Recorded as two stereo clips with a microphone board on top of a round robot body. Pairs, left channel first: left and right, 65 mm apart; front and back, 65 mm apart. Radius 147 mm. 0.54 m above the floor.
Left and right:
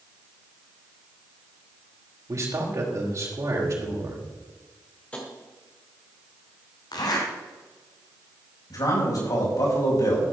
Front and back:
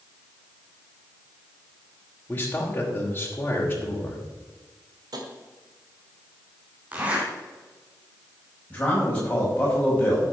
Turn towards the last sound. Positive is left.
turn(degrees=70)